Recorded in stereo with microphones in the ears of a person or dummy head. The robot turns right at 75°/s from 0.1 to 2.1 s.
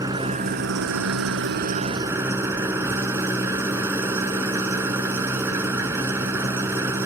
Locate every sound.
0.0 s an engine running: 165° right; by 7.1 s 15° right